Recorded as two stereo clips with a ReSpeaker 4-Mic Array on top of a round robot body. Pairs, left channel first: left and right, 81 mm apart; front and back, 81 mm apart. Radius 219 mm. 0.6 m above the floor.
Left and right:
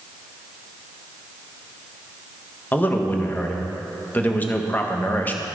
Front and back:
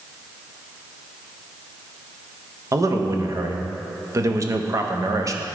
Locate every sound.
2.7 s a man speaking: 150° left, 1.3 m